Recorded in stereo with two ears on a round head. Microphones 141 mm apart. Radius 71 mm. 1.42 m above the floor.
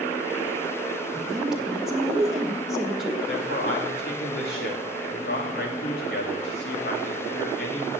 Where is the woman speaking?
5° right (ahead or behind), 1.7 m.